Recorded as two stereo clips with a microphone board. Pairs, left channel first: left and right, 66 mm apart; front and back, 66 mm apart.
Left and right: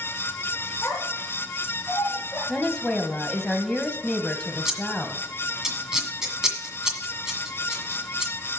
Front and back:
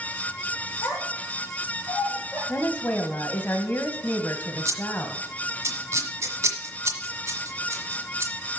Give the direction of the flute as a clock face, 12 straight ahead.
I don't hear a flute.